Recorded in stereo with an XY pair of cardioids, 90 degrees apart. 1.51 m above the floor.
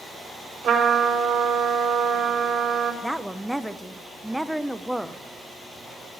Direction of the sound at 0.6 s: 60° right.